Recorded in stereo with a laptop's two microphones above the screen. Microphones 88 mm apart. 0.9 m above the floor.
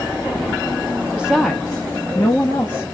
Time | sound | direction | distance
1.2 | a woman speaking | 10° right (ahead or behind) | 0.9 m